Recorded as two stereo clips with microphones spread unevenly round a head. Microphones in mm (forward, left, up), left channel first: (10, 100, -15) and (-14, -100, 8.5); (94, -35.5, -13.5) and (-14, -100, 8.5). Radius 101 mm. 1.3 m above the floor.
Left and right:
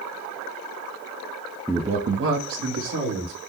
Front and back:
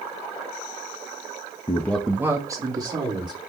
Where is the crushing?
I don't hear crushing.